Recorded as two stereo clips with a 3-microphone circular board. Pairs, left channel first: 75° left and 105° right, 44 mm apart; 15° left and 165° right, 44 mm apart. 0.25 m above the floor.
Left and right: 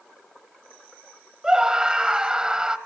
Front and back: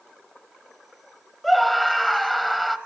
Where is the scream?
75° right, 1.4 m.